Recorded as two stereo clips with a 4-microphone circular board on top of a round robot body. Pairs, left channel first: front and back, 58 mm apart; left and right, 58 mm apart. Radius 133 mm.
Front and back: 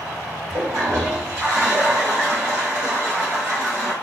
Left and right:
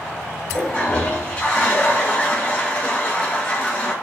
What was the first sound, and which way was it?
A toilet flushing, 150° left.